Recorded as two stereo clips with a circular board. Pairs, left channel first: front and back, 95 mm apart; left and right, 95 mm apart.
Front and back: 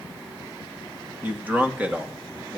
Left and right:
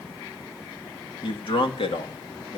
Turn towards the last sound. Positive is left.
turn(degrees=100)